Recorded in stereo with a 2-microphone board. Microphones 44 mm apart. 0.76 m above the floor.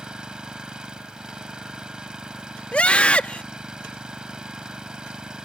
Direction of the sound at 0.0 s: 20° right (ahead or behind).